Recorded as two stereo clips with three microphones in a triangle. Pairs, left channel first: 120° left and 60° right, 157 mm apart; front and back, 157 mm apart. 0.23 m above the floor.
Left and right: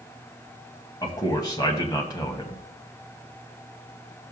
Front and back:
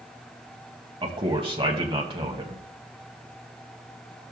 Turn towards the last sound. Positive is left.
turn(degrees=165)